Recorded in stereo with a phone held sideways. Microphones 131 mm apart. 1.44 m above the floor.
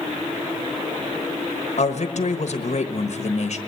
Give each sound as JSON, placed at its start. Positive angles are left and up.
{"t": 1.8, "sound": "a man speaking", "side_deg": 60, "distance_m": 1.3}